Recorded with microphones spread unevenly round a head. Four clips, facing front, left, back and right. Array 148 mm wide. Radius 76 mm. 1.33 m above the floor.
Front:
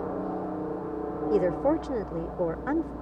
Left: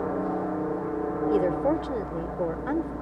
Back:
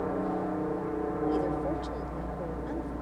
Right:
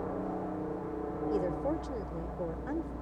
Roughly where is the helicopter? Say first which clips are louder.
Left 8 dB, back 1 dB; left.